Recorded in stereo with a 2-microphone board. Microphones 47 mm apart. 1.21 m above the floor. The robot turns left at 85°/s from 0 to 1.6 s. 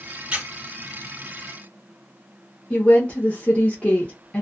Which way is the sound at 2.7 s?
25° left (ahead or behind).